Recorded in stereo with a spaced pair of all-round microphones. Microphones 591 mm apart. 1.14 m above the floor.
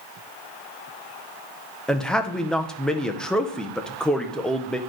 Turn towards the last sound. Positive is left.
turn(degrees=0)  # may be behind; listen again after turning